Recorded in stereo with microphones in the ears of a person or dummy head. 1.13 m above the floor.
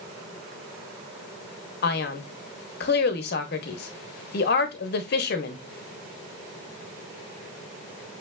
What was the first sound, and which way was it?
A man speaking, 55° left (ahead or behind).